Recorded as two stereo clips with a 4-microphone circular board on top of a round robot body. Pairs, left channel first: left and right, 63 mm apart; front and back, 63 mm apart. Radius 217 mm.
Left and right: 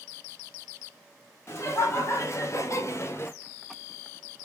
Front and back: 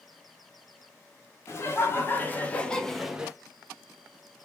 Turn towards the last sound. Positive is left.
turn(degrees=120)